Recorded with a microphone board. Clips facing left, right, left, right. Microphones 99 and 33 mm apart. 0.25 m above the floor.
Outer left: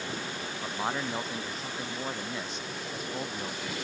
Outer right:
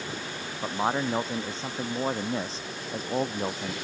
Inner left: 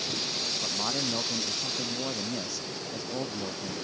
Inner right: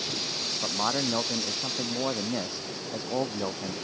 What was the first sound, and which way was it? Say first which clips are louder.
A man speaking: outer right 6 dB, inner right 6 dB; 25° right (ahead or behind).